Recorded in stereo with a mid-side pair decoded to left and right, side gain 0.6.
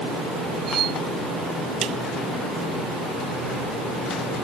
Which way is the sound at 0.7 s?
45° right.